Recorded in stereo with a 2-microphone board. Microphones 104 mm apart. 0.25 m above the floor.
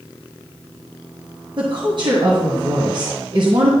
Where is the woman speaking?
50° right (ahead or behind), 1.9 m.